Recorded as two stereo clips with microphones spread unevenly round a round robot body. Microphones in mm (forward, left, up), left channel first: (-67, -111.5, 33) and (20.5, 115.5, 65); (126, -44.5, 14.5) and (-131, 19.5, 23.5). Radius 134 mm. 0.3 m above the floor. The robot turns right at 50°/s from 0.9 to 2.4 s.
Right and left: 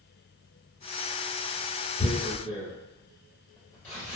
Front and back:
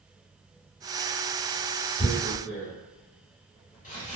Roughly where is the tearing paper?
Ahead right.